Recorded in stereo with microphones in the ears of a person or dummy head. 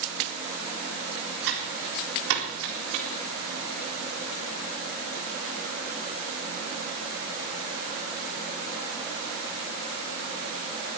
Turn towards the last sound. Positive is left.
turn(degrees=-80)